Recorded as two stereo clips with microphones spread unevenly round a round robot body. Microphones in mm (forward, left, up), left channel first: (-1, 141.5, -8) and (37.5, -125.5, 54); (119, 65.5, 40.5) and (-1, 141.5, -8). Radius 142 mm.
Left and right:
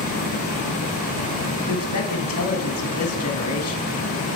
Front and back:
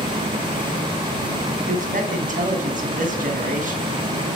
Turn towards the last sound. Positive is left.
turn(degrees=130)